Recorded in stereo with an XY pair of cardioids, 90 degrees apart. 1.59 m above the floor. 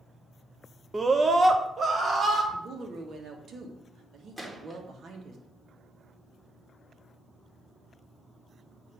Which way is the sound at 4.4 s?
10° right.